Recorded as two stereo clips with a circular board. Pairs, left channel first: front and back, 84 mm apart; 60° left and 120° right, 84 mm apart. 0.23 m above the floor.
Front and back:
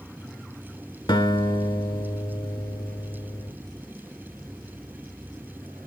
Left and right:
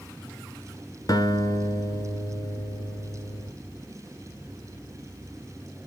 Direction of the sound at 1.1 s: 20° left.